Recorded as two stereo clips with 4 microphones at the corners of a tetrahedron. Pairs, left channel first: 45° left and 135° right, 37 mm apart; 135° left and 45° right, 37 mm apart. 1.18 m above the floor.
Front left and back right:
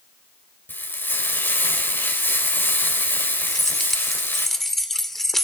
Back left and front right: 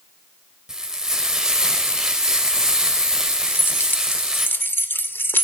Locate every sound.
0.7 s frying: 30° left, 5.5 m
3.5 s keys jangling: 130° left, 2.5 m